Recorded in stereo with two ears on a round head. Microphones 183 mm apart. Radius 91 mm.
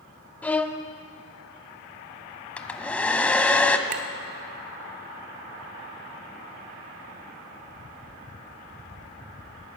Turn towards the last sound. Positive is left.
turn(degrees=-35)  # may be behind; listen again after turning